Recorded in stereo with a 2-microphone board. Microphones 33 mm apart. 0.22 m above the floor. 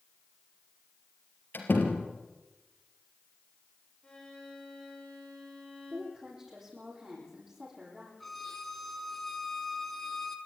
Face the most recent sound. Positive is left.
turn(degrees=5)  # may be behind; listen again after turning